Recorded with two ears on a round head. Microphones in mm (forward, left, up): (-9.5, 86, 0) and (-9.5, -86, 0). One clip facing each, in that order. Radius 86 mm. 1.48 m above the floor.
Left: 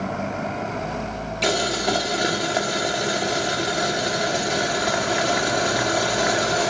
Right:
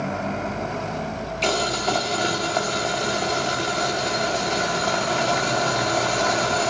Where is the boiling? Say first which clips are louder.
Left 1 dB; 15° left (ahead or behind), 1.1 m.